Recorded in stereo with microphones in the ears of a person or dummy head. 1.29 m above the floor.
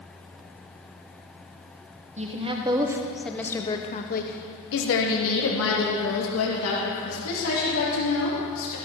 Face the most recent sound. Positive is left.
turn(degrees=80)